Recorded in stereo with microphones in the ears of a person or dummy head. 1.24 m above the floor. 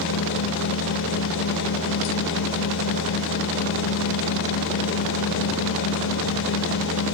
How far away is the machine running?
About 1.0 m.